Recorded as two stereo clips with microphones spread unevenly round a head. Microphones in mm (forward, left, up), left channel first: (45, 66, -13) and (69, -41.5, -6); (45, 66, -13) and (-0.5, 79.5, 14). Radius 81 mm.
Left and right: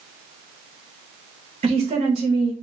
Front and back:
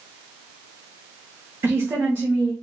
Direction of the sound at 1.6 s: 115° right.